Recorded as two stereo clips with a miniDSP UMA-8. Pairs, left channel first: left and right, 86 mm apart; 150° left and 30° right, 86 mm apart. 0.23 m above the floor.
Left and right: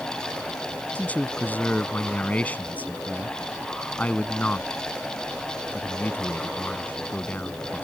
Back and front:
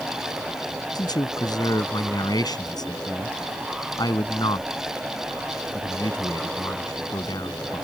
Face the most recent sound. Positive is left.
turn(degrees=160)